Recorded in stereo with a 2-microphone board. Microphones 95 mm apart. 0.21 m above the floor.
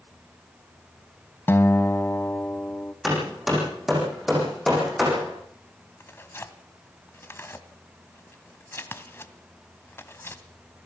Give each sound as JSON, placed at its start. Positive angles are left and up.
{"t": 1.5, "sound": "a guitar", "side_deg": 25, "distance_m": 0.7}
{"t": 3.0, "sound": "hammering", "side_deg": 0, "distance_m": 8.0}
{"t": 6.0, "sound": "tearing paper", "side_deg": 30, "distance_m": 1.3}